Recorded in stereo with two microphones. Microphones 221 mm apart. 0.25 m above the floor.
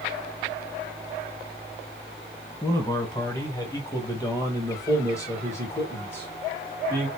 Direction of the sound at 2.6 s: 15° left (ahead or behind).